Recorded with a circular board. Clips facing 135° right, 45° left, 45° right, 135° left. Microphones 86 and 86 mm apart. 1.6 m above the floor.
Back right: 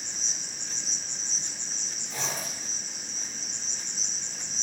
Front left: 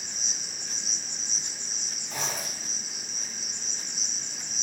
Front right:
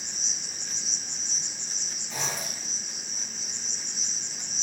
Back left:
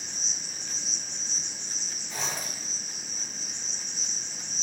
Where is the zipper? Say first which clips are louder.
Front left 1 dB, front right 1 dB; 20° left, 4 m.